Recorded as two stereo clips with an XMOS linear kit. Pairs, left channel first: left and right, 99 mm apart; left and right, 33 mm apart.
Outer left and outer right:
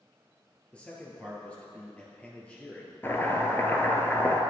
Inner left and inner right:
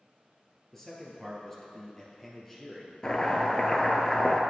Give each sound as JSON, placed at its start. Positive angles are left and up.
{"t": 0.7, "sound": "a man speaking", "side_deg": 15, "distance_m": 1.9}
{"t": 3.0, "sound": "chopping", "side_deg": 25, "distance_m": 1.1}